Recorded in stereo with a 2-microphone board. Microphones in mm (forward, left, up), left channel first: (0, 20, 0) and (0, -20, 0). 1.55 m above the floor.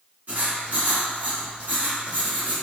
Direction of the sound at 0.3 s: 45° right (ahead or behind).